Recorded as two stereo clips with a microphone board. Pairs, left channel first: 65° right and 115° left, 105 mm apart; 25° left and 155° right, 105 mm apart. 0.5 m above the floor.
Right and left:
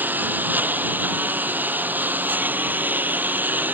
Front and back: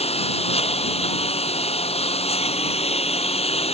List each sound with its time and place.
0.0 s a lawn mower: 40° left